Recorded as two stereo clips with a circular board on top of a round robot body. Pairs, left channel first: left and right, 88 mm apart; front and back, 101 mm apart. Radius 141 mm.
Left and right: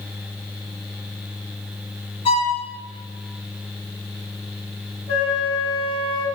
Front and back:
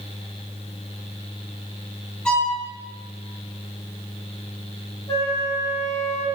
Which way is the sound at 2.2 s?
80° left.